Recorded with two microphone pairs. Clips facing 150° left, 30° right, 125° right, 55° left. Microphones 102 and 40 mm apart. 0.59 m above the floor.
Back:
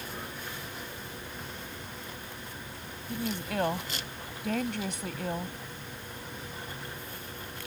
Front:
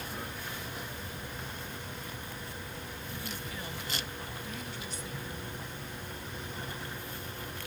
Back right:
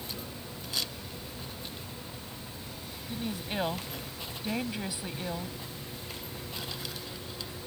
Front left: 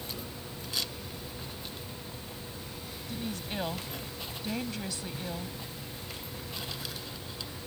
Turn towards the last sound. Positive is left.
turn(degrees=160)